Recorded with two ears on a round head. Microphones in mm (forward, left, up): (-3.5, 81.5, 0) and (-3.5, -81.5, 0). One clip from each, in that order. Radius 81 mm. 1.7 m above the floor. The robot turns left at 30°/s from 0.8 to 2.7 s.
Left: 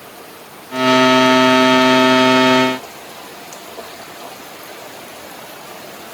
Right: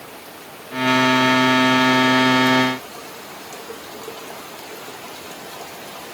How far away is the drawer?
No drawer in this recording.